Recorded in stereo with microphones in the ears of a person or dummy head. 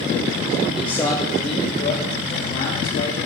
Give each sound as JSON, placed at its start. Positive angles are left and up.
{"t": 0.7, "sound": "a man speaking", "side_deg": -5, "distance_m": 0.7}